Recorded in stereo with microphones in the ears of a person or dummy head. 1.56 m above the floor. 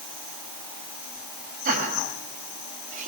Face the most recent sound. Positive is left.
turn(degrees=-45)  # may be behind; listen again after turning